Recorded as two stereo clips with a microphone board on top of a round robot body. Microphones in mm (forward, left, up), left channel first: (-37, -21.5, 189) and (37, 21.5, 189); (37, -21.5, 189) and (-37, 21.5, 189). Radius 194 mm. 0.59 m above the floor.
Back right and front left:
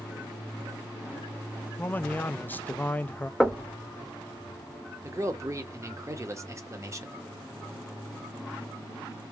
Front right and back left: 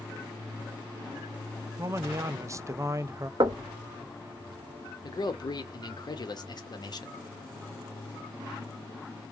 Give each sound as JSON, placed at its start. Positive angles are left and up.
{"t": 1.8, "sound": "a man speaking", "azimuth_deg": 155, "distance_m": 0.6}
{"t": 3.4, "sound": "knocking", "azimuth_deg": 115, "distance_m": 0.8}
{"t": 5.0, "sound": "a man speaking", "azimuth_deg": -15, "distance_m": 1.3}